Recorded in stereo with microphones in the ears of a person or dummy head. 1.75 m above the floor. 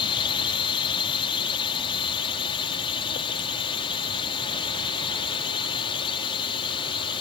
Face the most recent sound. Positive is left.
turn(degrees=30)  # may be behind; listen again after turning